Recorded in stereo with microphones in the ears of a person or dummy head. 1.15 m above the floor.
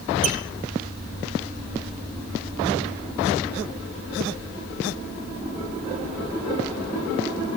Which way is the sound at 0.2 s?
45° right (ahead or behind).